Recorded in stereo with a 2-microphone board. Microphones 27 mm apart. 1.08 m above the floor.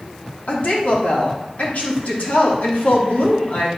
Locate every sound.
0.5 s a woman speaking: 75° left (ahead or behind), 3 m